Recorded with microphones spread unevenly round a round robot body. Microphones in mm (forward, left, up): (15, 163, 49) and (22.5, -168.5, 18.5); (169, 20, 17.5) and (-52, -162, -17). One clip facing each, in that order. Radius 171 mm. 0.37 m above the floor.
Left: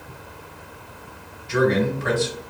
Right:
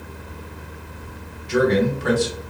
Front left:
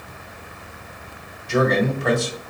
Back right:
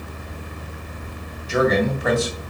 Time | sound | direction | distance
1.5 | a man speaking | 60° right | 1.8 m